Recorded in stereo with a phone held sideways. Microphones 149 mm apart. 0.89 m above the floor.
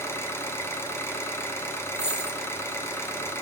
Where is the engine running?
15° left (ahead or behind), 0.9 m.